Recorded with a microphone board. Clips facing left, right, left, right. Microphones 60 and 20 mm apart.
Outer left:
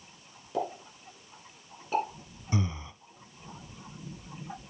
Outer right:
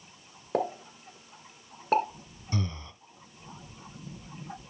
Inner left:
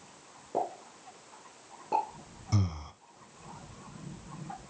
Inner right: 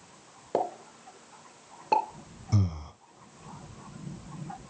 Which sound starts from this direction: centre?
Breathing, at 2.5 s.